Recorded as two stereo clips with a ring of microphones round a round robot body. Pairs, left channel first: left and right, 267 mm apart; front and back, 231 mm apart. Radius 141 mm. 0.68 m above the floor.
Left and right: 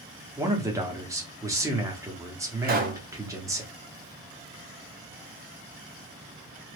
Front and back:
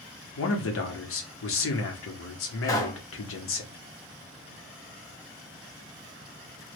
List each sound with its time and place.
0.4 s a man speaking: 10° right, 1.0 m
2.6 s a pop: 65° right, 0.9 m